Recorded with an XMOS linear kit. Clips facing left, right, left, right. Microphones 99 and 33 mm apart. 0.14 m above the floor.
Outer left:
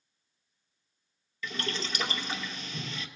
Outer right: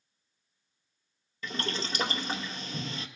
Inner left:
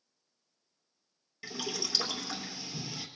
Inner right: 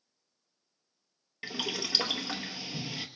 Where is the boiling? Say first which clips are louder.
Outer right 1 dB, inner right 3 dB; 40° right (ahead or behind), 0.8 m.